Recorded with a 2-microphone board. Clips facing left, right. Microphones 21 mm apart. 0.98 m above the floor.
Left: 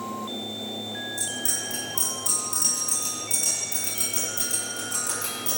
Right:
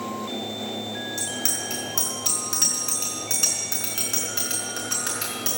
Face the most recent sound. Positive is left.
turn(degrees=-60)  # may be behind; listen again after turning